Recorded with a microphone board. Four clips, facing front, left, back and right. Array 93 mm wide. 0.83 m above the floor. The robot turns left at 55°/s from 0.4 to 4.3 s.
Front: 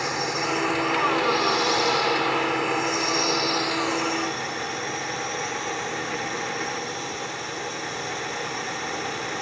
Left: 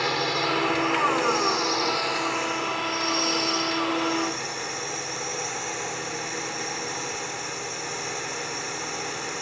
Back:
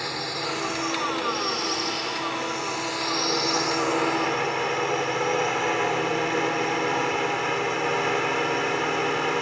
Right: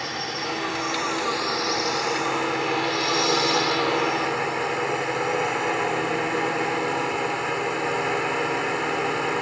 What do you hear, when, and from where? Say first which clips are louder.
0.0 s a drone: left 4 dB, front 4 dB; 75° left; by 9.4 s 140° right